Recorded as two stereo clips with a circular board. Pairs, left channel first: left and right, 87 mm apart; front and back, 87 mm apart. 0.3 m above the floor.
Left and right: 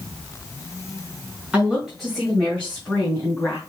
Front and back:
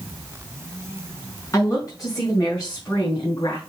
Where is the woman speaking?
20° right, 1.8 m; by 3.6 s 30° left, 3 m.